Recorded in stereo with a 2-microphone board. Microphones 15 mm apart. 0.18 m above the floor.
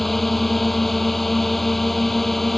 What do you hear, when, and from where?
0.0 s a drone: 10° left (ahead or behind)